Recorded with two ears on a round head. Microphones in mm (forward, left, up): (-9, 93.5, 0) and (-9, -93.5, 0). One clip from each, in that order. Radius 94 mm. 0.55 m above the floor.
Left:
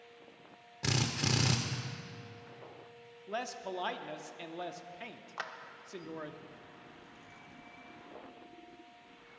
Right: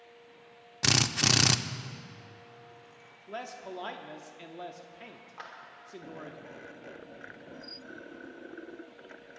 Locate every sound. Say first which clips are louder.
0.8 s a drill: right 8 dB; 45° right (ahead or behind), 0.5 m
3.3 s a man speaking: left 2 dB; 15° left (ahead or behind), 0.6 m
5.4 s a clap: left 4 dB; 30° left (ahead or behind), 0.9 m